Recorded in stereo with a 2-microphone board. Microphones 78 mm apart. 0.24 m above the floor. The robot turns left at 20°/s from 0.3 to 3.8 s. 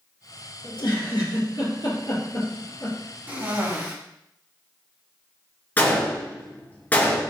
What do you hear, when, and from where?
0.6 s a giggle: 75° left (ahead or behind), 3.5 m; by 3.0 s 40° left (ahead or behind), 3.5 m
3.3 s a cough: 25° right (ahead or behind), 2 m; by 3.9 s 30° right (ahead or behind), 2 m
5.8 s a gunshot: 20° left (ahead or behind), 2 m